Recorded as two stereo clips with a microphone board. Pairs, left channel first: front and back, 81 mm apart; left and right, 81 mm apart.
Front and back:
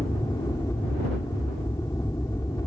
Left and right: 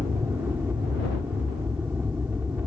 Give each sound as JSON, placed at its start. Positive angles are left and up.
{"t": 0.0, "sound": "an aircraft", "azimuth_deg": -30}